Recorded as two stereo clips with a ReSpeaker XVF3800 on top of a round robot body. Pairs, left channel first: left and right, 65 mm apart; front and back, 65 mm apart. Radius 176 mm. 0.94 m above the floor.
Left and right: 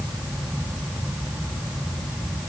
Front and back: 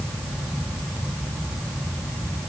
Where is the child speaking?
No child speaking in this recording.